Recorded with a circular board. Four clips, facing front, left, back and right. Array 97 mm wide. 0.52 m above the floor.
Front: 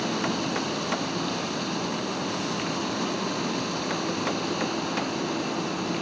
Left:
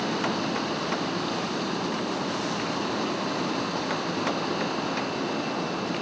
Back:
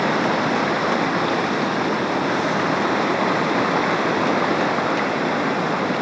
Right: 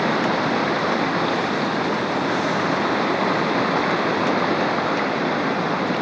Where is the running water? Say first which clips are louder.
Right 7 dB, back 8 dB; 145° right.